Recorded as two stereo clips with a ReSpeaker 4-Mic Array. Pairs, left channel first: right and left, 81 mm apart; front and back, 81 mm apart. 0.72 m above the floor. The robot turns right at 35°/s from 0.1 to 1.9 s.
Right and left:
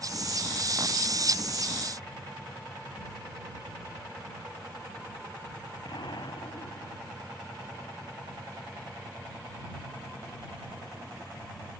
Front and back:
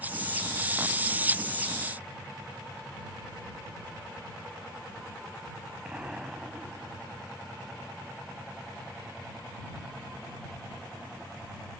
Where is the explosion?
105° right.